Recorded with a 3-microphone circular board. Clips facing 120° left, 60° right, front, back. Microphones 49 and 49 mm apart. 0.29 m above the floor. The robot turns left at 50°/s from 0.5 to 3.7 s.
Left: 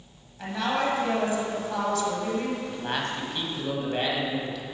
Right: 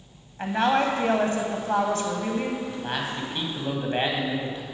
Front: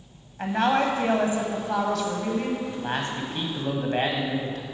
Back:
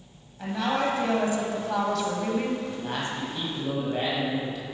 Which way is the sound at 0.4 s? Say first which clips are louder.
Right 5 dB, front 4 dB; 20° right.